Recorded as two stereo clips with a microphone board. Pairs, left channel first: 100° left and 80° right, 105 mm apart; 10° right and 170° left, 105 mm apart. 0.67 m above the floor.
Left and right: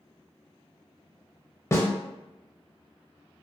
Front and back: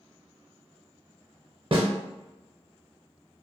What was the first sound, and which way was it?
A snare drum, 160° left.